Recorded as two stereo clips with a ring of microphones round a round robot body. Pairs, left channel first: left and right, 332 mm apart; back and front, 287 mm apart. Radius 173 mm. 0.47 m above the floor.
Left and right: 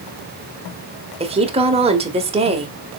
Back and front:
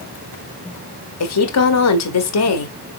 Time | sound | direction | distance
1.2 | a woman speaking | 160° right | 1.6 m